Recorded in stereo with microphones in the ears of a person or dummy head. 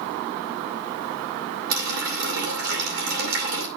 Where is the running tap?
60° right (ahead or behind), 2 m.